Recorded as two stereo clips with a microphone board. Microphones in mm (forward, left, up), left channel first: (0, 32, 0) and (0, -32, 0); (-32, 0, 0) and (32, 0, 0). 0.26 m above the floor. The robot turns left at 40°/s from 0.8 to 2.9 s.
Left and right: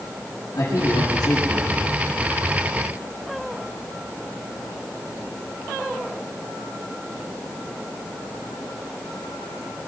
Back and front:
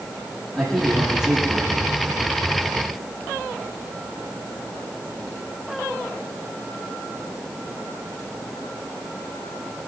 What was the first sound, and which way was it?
A man speaking, 95° left.